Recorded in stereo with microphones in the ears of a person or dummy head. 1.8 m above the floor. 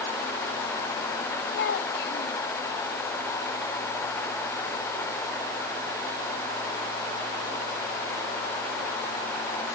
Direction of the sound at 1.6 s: 70° left (ahead or behind).